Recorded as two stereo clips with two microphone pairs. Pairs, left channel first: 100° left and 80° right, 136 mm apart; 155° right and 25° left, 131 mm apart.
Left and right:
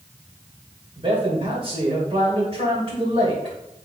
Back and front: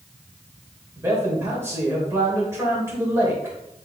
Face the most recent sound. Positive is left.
turn(degrees=-45)